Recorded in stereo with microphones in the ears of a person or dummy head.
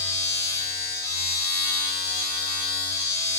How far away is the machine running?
About 1.5 m.